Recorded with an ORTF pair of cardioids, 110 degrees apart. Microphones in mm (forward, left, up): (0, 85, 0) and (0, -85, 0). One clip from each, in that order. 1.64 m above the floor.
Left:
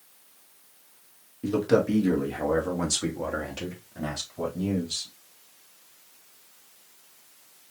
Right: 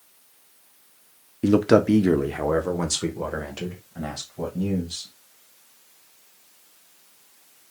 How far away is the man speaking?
About 0.9 m.